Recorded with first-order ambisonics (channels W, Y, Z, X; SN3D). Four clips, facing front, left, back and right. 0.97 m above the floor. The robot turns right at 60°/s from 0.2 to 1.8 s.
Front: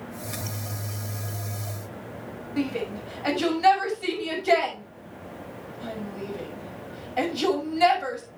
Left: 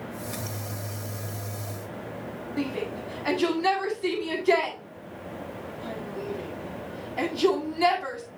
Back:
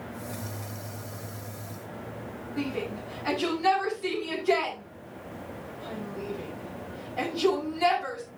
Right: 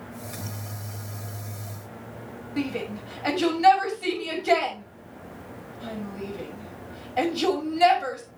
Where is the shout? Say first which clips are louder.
Right 1 dB, front 4 dB; 50° right, 6 m.